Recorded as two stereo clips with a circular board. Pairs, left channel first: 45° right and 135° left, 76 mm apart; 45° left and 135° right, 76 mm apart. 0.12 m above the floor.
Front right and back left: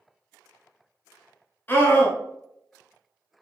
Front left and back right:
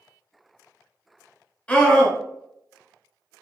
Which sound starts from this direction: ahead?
A scream, at 1.7 s.